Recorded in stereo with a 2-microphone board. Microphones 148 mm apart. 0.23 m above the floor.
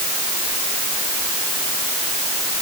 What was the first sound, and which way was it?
Only background noise.